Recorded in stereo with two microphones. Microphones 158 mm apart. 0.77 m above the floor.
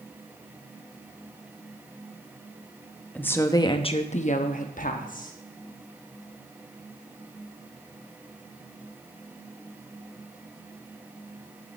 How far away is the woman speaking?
About 0.8 m.